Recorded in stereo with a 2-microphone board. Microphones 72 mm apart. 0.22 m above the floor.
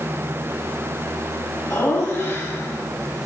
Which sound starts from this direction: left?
Laughter, at 1.7 s.